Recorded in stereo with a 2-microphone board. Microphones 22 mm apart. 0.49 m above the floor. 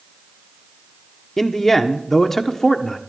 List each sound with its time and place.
1.4 s a man speaking: 20° left (ahead or behind), 1.0 m